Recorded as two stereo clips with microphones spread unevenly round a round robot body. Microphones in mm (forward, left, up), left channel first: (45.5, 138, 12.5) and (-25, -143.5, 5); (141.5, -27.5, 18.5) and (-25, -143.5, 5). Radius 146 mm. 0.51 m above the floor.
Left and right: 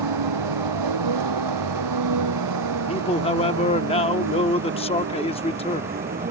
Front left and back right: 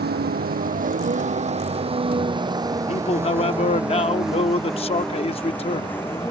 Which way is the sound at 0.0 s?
110° right.